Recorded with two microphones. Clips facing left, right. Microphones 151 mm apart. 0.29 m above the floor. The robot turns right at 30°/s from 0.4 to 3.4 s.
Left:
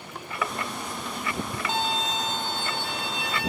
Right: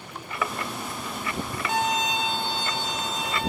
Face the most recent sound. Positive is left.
turn(degrees=75)